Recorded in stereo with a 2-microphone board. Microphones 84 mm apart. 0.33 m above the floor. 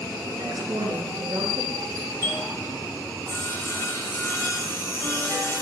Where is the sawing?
30° left (ahead or behind), 1.5 m.